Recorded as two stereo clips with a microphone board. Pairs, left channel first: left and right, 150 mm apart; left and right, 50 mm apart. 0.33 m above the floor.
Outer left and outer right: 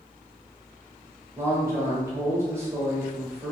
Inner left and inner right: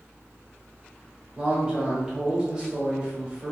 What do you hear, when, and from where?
1.4 s a man speaking: 20° right (ahead or behind), 0.9 m